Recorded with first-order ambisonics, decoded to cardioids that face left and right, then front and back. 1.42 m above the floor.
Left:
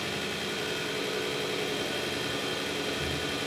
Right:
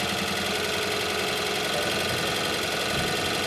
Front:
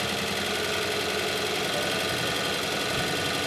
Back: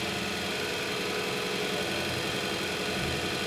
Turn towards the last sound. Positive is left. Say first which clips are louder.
# right 6 dB, front 4 dB
turn(degrees=-65)